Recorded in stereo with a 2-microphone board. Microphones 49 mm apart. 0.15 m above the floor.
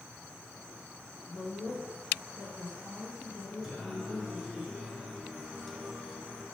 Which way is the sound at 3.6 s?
Centre (ahead or behind).